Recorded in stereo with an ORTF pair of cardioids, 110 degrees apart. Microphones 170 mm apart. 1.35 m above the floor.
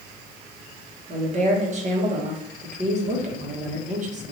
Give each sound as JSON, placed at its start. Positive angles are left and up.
{"t": 1.1, "sound": "a woman speaking", "azimuth_deg": -40, "distance_m": 1.2}